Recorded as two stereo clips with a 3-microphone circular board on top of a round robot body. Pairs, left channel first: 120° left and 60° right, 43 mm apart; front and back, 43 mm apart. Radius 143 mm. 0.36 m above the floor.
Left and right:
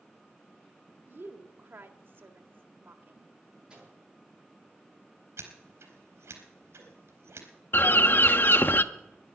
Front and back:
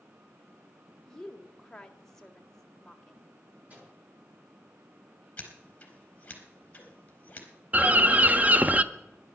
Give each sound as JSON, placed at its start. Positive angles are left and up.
{"t": 1.1, "sound": "a woman speaking", "azimuth_deg": -75, "distance_m": 2.0}
{"t": 3.7, "sound": "a microwave", "azimuth_deg": -125, "distance_m": 10.0}
{"t": 5.4, "sound": "scissors", "azimuth_deg": -60, "distance_m": 4.0}
{"t": 7.7, "sound": "a bird", "azimuth_deg": 140, "distance_m": 1.0}